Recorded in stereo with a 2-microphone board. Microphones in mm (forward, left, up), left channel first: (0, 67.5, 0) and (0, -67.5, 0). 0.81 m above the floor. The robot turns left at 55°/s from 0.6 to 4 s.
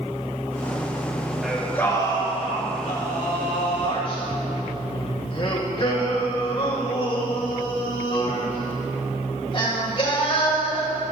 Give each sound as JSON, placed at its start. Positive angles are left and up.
{"t": 1.4, "sound": "singing", "azimuth_deg": -175, "distance_m": 2.5}